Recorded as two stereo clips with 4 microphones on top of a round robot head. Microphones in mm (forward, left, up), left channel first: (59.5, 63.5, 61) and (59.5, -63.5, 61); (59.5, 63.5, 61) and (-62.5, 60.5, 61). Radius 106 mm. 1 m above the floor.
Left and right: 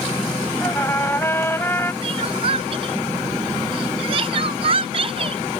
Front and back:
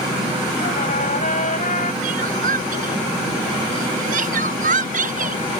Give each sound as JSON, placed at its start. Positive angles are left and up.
{"t": 0.6, "sound": "a trumpet", "azimuth_deg": 15}
{"t": 2.0, "sound": "crying", "azimuth_deg": -150}